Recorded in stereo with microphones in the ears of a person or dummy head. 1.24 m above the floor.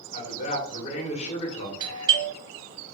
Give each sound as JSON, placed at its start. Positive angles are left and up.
{"t": 0.1, "sound": "a man speaking", "side_deg": 40, "distance_m": 1.6}
{"t": 1.8, "sound": "a doorbell", "side_deg": -30, "distance_m": 2.0}